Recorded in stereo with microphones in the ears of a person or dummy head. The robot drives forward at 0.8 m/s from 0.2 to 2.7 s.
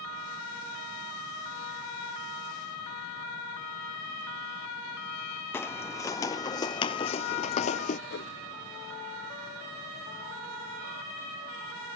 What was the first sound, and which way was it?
Footsteps, 15° left (ahead or behind).